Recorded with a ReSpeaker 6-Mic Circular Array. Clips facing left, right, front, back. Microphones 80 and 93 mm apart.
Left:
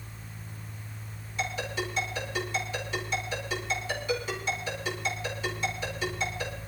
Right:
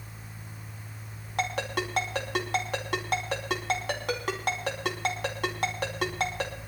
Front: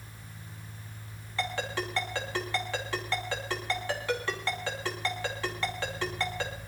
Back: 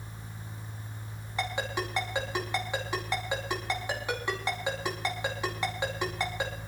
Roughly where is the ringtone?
Right.